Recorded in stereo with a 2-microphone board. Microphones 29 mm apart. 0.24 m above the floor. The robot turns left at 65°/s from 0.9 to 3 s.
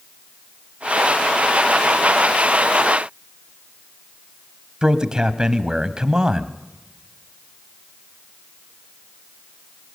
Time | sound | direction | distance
4.8 | a man speaking | 30° right (ahead or behind) | 1.2 m